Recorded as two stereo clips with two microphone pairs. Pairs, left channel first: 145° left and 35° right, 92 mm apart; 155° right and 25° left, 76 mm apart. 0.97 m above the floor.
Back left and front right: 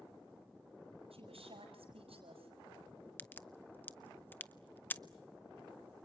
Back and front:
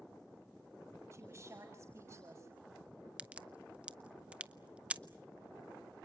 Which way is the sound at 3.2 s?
90° left.